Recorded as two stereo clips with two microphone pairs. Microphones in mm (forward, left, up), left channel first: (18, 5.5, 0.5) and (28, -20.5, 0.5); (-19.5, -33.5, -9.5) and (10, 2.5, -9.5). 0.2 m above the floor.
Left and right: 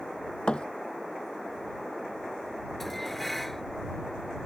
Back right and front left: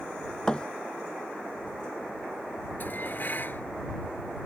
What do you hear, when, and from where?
0.5 s a thud: 160° left
2.8 s dishes clattering: 165° right